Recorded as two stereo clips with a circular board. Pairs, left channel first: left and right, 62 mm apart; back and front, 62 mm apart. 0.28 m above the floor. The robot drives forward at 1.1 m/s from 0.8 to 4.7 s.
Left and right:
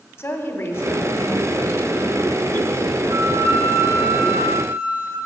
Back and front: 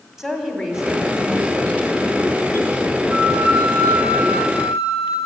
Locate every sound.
0.2 s a woman speaking: 85° left, 1.8 m; by 3.4 s 155° left, 3.5 m
3.1 s a flute: 80° right, 6 m; by 5.2 s 95° right, 5.5 m